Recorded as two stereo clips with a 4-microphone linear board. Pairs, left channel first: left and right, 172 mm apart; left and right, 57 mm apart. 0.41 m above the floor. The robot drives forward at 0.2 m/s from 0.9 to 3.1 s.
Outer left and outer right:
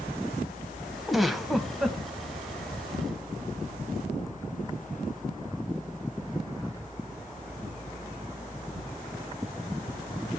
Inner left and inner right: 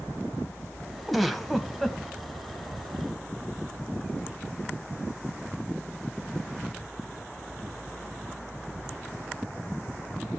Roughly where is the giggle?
Centre.